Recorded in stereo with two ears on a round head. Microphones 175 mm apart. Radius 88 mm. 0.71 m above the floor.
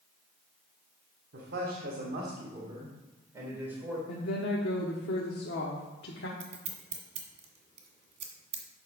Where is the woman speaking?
60° left (ahead or behind), 1.2 m.